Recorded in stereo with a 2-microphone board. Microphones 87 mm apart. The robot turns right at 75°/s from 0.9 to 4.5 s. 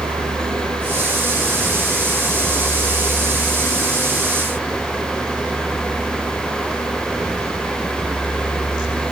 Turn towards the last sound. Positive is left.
turn(degrees=-165)